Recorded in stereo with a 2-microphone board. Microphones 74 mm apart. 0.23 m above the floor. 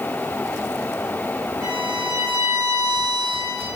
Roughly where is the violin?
Right.